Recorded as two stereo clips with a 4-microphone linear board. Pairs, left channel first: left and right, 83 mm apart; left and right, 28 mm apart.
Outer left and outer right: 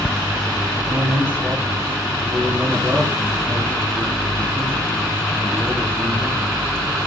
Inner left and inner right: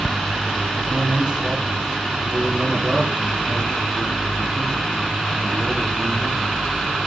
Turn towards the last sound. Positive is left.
turn(degrees=-25)  # may be behind; listen again after turning